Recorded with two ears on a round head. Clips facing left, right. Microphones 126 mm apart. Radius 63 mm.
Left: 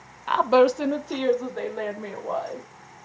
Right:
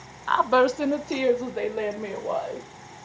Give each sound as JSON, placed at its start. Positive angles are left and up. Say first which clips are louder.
{"t": 0.3, "sound": "a woman speaking", "louder": "left 2 dB", "side_deg": 15, "distance_m": 0.6}